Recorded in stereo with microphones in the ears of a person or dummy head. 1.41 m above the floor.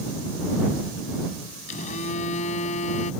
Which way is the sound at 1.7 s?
35° left (ahead or behind).